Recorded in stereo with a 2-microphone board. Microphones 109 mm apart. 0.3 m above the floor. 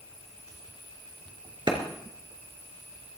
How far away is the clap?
About 3 m.